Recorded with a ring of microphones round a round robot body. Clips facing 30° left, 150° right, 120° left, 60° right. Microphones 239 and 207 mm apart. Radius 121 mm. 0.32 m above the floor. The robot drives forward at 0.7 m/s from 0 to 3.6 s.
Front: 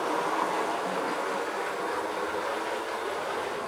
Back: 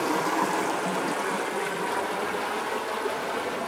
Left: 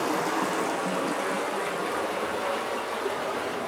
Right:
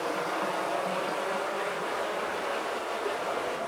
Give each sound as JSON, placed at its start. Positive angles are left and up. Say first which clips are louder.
{"t": 0.0, "sound": "running water", "louder": "back 4 dB, left 4 dB", "azimuth_deg": 160, "distance_m": 1.5}